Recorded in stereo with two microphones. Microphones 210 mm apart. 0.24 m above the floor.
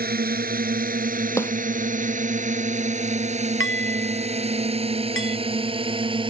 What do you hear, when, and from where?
0.0 s a drone: 45° right (ahead or behind); by 6.3 s 25° right (ahead or behind)
1.4 s a snare drum: 10° left (ahead or behind)
3.6 s dishes clattering: 75° left (ahead or behind)